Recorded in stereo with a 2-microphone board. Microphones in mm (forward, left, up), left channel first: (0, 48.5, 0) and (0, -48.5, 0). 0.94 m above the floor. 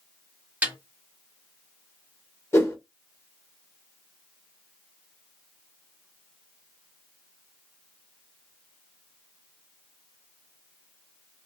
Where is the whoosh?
25° left (ahead or behind), 1.3 m.